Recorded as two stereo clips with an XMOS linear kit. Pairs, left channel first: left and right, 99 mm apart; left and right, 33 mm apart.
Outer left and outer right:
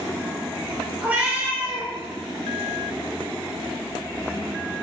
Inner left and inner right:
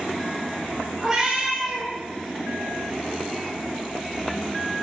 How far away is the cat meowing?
About 0.7 m.